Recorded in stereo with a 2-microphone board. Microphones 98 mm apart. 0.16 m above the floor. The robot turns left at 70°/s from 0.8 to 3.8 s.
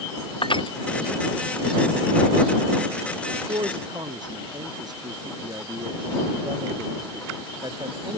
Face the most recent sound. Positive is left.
turn(degrees=-135)